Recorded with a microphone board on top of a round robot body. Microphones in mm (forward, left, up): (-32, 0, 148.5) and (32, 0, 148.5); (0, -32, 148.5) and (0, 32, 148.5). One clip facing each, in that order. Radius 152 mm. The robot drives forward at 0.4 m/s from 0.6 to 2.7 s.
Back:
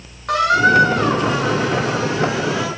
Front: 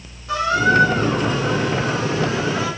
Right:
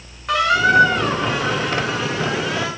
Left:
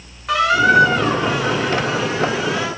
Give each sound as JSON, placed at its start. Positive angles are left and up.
{"t": 0.3, "sound": "a squeak", "azimuth_deg": 180, "distance_m": 1.1}